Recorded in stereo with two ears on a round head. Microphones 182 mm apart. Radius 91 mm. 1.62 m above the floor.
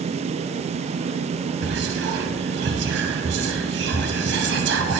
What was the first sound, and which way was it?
Whispering, 60° right (ahead or behind).